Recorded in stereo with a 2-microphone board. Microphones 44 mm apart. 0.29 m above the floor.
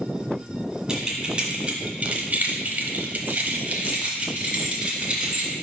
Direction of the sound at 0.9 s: 15° right (ahead or behind).